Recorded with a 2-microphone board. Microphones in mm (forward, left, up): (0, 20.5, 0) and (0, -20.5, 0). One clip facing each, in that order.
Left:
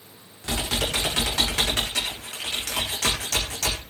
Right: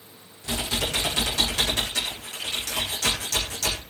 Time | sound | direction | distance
0.4 | typing on a keyboard | 80° left | 9 m